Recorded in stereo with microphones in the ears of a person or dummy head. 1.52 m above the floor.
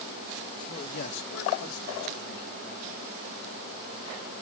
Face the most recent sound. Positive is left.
turn(degrees=-60)  # may be behind; listen again after turning